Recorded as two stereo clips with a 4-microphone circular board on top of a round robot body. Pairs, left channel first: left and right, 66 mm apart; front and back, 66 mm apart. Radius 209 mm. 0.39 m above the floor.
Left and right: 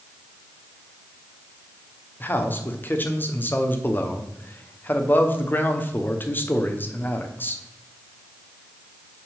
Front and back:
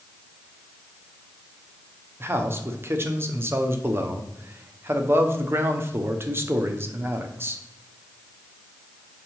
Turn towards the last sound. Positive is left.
turn(degrees=140)